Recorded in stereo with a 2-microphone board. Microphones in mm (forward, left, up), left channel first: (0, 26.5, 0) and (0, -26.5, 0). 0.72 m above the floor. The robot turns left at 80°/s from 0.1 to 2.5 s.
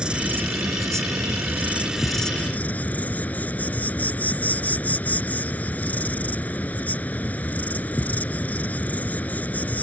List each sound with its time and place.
0.0 s an insect: 20° right; by 9.8 s 150° left